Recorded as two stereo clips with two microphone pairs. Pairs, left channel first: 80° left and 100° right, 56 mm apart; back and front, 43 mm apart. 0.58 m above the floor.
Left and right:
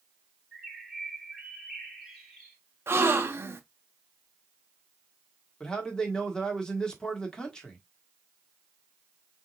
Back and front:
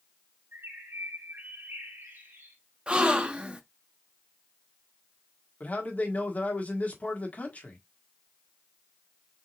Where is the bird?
5° right, 2 m.